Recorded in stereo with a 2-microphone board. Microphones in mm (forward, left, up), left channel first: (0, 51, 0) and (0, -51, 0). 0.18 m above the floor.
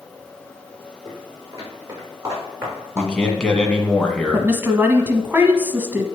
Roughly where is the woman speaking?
Right.